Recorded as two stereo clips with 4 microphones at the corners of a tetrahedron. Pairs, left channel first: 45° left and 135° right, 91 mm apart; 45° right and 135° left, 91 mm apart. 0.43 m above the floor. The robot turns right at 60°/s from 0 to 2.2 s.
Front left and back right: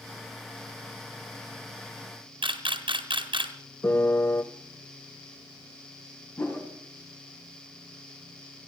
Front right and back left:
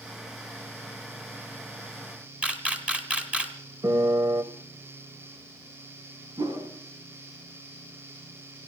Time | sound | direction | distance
2.4 | a camera shutter | 145° right | 2 m
3.8 | a piano | 95° left | 1.1 m
6.4 | a whoosh | 100° left | 4 m